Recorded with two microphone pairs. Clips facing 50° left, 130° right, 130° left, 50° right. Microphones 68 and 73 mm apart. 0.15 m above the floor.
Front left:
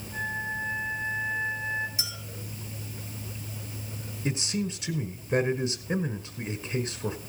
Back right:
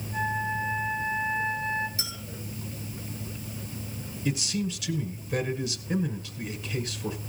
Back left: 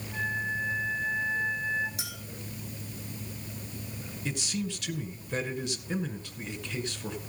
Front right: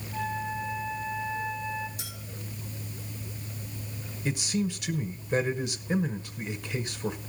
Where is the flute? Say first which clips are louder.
Back right 3 dB, even; 125° left, 5.5 m.